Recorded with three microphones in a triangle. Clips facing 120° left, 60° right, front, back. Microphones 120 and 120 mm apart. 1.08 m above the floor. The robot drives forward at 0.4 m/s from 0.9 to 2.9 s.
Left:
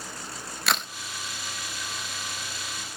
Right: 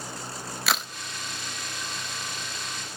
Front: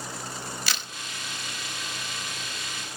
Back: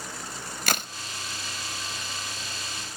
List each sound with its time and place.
0.7 s a crack: 150° right, 0.6 m